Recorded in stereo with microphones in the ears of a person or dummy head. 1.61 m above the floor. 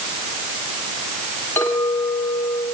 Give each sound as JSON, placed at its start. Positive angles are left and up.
{"t": 1.6, "sound": "a clink", "side_deg": 15, "distance_m": 7.0}